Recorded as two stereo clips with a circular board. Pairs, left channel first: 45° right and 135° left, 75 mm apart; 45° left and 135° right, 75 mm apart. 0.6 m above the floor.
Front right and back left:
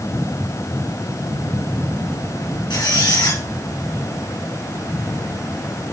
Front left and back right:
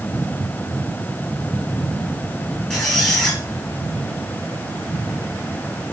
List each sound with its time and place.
2.7 s a squeak: 35° right, 6.5 m